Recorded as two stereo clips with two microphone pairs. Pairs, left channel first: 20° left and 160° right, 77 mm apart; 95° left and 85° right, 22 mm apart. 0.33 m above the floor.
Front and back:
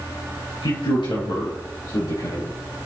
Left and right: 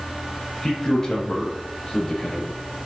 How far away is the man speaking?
About 5 m.